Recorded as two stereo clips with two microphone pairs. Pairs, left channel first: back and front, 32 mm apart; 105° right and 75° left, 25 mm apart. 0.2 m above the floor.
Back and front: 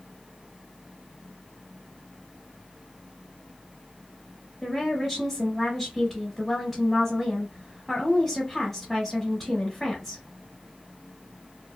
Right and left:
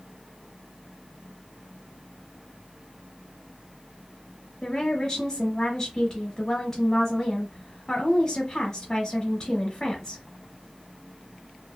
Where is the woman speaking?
100° right, 1.0 m.